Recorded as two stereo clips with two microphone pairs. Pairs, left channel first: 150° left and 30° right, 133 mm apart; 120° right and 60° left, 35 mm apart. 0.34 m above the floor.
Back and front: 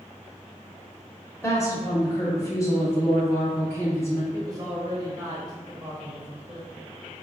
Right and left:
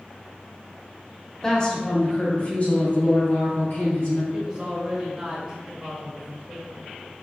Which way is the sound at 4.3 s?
10° left.